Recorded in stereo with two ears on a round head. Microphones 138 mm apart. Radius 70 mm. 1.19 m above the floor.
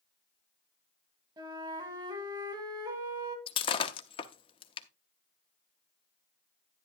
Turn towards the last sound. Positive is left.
turn(degrees=35)  # may be behind; listen again after turning